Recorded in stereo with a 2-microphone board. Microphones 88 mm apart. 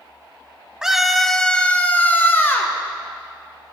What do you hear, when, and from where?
0.8 s a scream: 5° right (ahead or behind), 1.1 m; by 2.8 s 25° left (ahead or behind), 2 m